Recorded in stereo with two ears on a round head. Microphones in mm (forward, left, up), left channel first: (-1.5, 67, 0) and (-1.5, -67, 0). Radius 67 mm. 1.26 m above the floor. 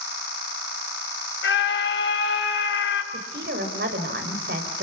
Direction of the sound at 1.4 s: 80° left.